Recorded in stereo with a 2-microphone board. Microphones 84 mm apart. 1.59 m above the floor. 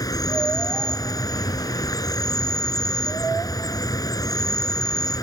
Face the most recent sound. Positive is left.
turn(degrees=45)  # may be behind; listen again after turning